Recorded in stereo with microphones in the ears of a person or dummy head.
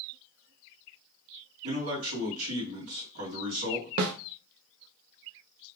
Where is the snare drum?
80° right, 0.6 m.